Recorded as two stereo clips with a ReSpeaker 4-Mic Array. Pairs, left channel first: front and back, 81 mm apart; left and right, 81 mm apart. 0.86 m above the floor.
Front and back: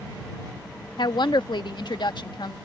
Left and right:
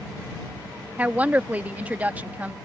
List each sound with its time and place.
1.0 s a woman speaking: 20° right